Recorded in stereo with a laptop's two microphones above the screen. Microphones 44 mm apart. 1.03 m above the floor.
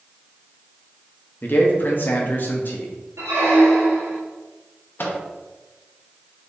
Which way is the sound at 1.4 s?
45° left (ahead or behind).